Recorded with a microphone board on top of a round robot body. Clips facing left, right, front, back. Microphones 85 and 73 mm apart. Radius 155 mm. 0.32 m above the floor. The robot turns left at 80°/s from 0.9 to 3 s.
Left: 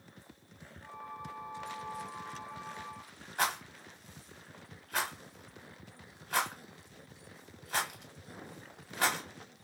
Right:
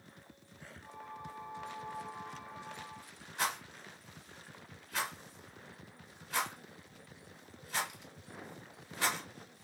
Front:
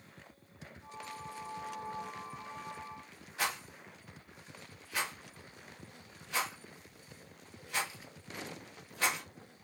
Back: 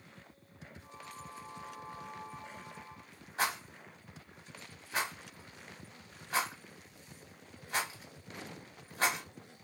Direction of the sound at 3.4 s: 130° left.